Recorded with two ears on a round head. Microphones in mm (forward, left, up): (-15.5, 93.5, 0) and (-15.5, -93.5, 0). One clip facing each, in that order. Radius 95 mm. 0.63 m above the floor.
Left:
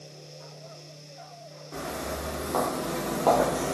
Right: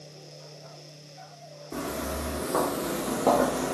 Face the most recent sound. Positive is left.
turn(degrees=10)  # may be behind; listen again after turning